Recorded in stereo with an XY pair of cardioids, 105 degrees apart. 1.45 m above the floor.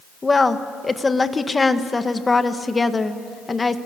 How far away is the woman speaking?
About 1.6 m.